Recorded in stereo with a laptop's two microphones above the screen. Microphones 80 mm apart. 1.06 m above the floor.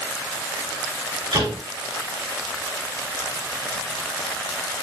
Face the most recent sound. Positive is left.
turn(degrees=-70)  # may be behind; listen again after turning